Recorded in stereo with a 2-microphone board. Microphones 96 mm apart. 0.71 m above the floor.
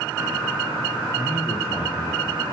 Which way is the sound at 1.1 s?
30° left (ahead or behind).